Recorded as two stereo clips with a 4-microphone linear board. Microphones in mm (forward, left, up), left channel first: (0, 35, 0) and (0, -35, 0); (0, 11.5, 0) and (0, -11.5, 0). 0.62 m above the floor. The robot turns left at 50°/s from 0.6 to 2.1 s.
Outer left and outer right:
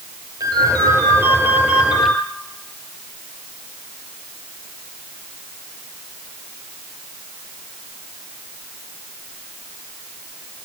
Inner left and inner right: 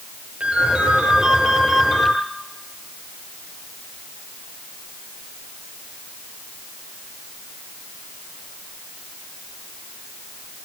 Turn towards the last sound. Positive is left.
turn(degrees=180)